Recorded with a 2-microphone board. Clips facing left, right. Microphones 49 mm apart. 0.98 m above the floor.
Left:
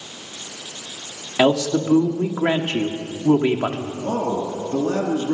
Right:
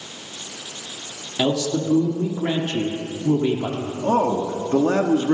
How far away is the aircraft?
No aircraft in this recording.